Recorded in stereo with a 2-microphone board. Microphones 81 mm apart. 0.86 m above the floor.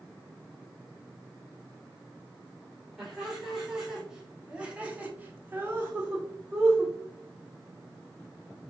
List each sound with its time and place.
3.0 s laughter: 5° right (ahead or behind), 2 m; by 7.0 s 10° right (ahead or behind), 1.2 m